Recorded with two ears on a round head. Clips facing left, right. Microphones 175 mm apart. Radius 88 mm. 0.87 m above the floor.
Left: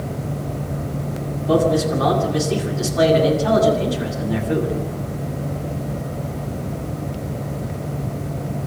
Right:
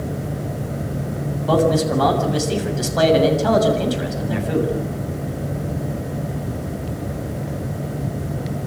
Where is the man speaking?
75° right (ahead or behind), 7 m.